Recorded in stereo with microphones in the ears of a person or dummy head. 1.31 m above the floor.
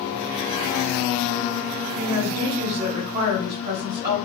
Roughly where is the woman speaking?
Right.